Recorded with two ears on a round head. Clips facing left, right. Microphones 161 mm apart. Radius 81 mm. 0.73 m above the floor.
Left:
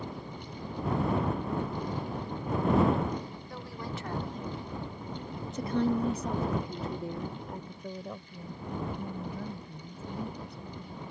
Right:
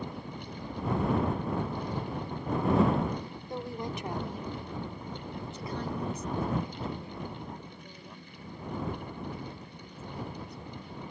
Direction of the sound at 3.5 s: 20° right (ahead or behind).